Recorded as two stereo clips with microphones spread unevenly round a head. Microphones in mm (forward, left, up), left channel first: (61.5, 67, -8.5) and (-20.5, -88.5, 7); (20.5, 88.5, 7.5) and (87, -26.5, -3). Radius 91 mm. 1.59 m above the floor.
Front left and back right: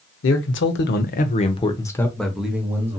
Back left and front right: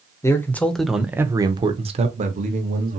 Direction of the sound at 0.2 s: 50° left.